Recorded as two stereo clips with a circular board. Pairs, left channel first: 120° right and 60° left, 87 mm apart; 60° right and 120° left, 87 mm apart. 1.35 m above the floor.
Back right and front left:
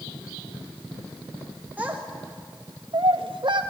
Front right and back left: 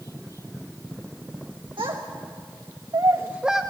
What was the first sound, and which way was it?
A child speaking, 135° left.